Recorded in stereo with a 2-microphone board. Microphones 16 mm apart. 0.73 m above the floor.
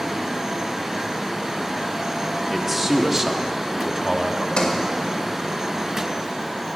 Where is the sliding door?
80° left, 1.9 m.